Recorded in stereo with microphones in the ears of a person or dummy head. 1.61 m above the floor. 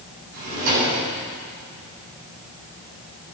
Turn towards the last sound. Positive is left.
turn(degrees=-80)